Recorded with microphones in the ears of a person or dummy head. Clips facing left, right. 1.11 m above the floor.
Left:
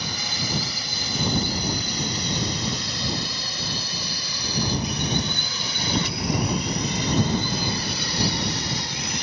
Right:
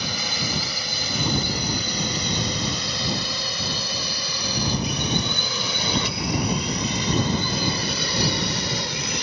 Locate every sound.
0.0 s a drone: 70° right (ahead or behind)